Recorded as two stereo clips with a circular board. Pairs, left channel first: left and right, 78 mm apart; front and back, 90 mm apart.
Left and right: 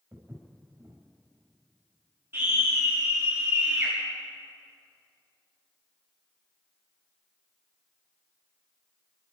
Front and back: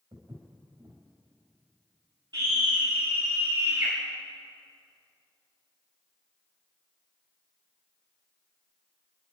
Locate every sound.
0.1 s footsteps: 145° right, 5.5 m
2.3 s a scream: 150° right, 4 m